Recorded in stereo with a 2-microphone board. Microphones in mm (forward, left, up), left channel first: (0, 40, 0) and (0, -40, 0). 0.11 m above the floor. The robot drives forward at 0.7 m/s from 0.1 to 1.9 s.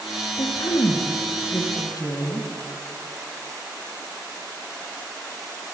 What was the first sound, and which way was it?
A woman speaking, 65° left (ahead or behind).